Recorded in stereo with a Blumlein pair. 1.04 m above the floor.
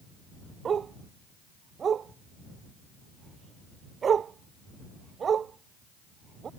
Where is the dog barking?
20° right.